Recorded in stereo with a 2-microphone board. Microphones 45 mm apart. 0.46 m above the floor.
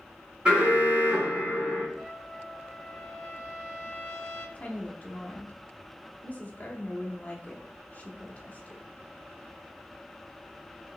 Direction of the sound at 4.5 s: 35° left (ahead or behind).